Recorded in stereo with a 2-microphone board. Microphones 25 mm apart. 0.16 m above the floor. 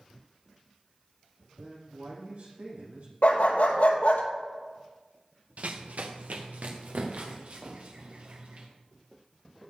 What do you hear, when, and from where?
1.6 s a man speaking: 80° right, 6.5 m
3.2 s a dog barking: 70° left (ahead or behind), 1.7 m
5.6 s running footsteps: 70° right (ahead or behind), 1.4 m